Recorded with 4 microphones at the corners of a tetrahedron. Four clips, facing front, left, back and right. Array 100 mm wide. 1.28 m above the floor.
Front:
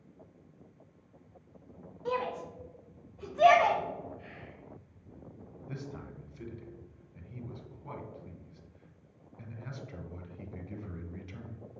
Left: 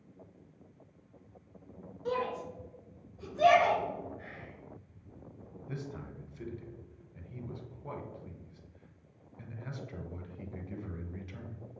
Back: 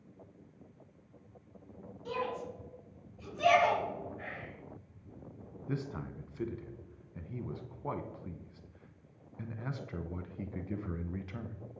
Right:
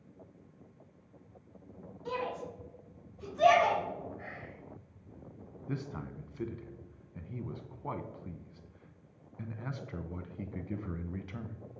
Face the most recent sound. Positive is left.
turn(degrees=-135)